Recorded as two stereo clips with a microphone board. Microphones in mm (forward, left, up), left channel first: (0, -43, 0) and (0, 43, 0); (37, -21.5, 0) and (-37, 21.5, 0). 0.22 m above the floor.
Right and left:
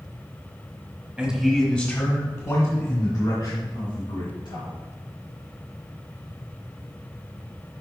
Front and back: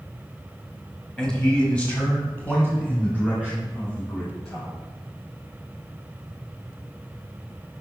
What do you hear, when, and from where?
1.2 s a man speaking: 40° left, 1.3 m; by 4.8 s 100° right, 4 m